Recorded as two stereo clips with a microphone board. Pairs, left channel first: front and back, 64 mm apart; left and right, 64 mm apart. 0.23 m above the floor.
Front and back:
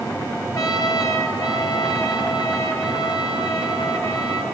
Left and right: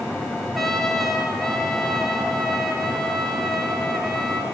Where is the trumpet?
Straight ahead, 3 m.